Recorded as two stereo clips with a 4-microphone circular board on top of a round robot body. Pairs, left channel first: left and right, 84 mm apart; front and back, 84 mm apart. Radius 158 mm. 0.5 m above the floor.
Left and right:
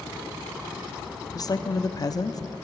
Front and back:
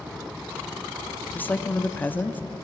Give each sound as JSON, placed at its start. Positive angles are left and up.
{"t": 1.4, "sound": "a woman speaking", "azimuth_deg": 65, "distance_m": 1.0}